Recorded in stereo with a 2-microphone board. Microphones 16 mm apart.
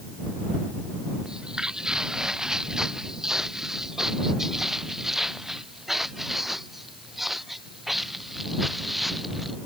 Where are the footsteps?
60° right (ahead or behind); by 9.6 s 10° right (ahead or behind).